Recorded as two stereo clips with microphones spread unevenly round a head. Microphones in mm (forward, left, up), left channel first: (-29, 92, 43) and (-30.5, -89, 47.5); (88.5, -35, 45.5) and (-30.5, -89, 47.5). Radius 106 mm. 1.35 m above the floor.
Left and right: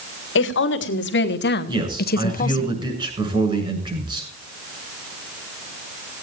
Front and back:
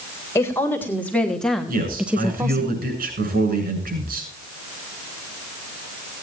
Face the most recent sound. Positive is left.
turn(degrees=-155)